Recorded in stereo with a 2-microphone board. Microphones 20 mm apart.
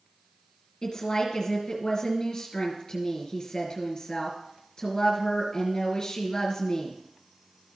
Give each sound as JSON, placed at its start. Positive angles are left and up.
{"t": 0.8, "sound": "a woman speaking", "side_deg": 35, "distance_m": 2.0}